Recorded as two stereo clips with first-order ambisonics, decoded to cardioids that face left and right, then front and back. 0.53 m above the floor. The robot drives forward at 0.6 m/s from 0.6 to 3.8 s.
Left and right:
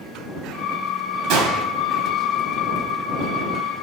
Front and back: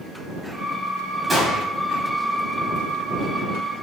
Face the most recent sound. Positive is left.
turn(degrees=-125)